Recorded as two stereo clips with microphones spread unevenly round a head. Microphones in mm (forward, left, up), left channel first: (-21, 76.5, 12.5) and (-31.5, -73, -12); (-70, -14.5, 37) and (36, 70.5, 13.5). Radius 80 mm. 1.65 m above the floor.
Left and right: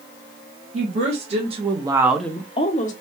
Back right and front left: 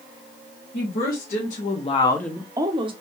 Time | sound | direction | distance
0.7 | a woman speaking | 135° right | 1.8 m